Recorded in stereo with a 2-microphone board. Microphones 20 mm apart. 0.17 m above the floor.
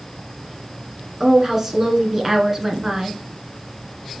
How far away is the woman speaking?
About 1.6 m.